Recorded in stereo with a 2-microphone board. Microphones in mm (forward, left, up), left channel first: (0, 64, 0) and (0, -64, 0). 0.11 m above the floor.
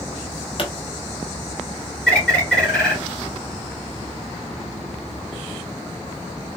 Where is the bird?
5° left (ahead or behind), 2 m.